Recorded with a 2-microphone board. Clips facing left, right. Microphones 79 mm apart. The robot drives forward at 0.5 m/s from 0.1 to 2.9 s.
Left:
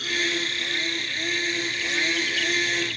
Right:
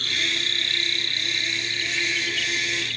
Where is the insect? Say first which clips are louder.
Left 2 dB; 5° left (ahead or behind).